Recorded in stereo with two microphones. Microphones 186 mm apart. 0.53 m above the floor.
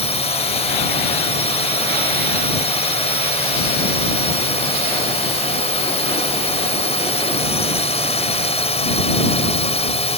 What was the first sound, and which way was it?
A drone, 35° left (ahead or behind).